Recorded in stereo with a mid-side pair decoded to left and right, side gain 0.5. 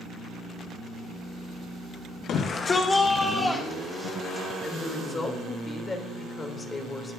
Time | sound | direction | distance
2.3 | a shout | 65° left | 1.0 m
4.6 | a woman speaking | 30° left | 3 m